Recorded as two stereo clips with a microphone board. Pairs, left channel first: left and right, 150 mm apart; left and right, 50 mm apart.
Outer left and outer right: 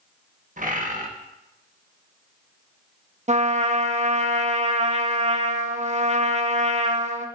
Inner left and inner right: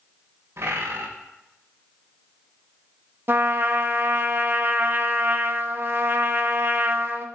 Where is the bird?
60° right (ahead or behind), 1.4 m.